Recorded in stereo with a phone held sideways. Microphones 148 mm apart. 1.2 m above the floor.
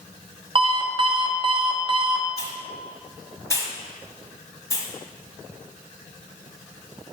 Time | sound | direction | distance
0.6 | an alarm clock | 35° right (ahead or behind) | 0.8 m
2.4 | a hiss | 20° left (ahead or behind) | 1.1 m